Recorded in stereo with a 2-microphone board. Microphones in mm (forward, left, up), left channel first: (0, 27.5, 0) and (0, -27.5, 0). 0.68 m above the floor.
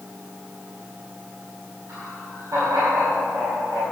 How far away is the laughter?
About 5 m.